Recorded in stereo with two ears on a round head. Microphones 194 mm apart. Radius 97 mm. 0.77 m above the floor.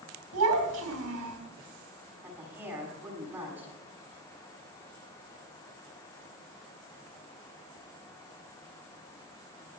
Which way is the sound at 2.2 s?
10° right (ahead or behind).